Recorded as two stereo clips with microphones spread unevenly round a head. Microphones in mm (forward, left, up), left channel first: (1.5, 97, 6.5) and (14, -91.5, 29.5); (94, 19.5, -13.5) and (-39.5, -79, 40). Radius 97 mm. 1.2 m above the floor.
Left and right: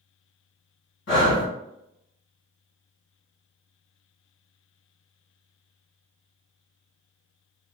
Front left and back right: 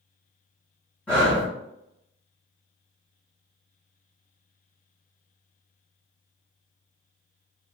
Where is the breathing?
115° left, 1.1 m.